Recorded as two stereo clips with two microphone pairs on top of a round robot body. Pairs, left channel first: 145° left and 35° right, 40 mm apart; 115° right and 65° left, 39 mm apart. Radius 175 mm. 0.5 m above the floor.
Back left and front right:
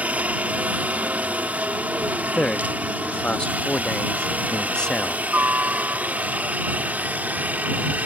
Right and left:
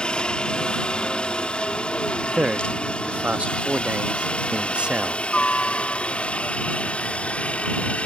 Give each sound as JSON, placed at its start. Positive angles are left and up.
{"t": 0.0, "sound": "a helicopter", "azimuth_deg": -50}
{"t": 2.3, "sound": "a man speaking", "azimuth_deg": 80}